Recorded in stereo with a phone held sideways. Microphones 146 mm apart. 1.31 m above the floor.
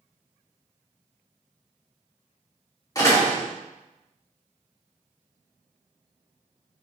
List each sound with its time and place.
3.0 s a door slam: 25° left (ahead or behind), 2.0 m